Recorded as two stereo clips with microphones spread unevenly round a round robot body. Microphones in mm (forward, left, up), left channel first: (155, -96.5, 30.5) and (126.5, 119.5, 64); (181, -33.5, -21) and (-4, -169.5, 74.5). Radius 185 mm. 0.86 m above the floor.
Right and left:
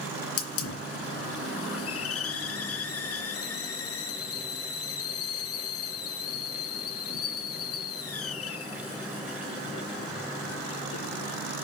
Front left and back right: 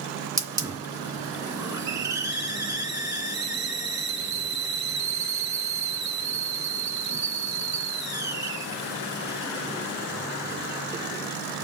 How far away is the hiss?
About 2.5 m.